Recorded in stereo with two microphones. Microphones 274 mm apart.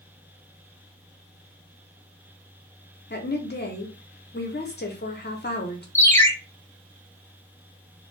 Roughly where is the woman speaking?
Left.